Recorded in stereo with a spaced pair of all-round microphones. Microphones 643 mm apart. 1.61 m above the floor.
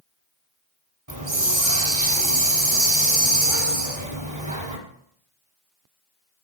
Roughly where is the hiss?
Right.